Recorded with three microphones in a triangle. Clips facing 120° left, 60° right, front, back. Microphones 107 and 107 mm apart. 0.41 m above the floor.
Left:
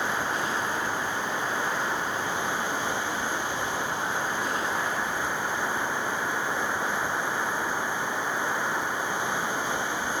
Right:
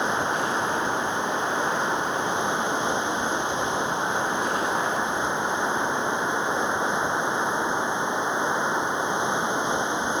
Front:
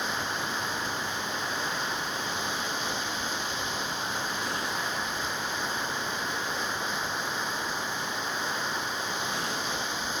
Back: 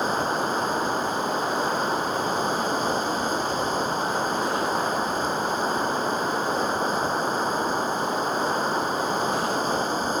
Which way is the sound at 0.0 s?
130° right.